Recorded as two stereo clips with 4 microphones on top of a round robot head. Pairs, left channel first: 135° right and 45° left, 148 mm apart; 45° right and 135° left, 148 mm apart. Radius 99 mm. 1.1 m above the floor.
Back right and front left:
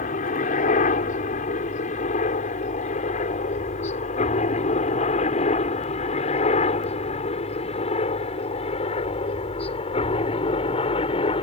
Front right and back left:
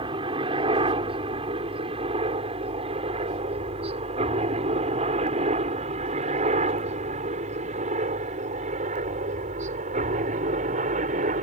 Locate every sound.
0.0 s a helicopter: 170° right; by 11.4 s 170° left